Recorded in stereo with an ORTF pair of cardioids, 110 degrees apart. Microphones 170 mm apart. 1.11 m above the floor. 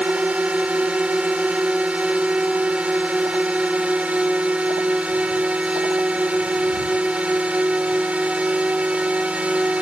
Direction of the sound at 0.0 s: 5° right.